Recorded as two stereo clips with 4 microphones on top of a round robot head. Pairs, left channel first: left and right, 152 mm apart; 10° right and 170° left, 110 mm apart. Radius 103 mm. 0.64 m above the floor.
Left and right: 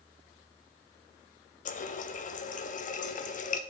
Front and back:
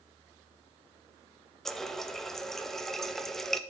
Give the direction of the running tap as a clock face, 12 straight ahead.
9 o'clock.